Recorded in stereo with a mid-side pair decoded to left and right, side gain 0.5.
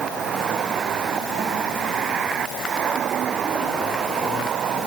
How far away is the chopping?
No chopping in this recording.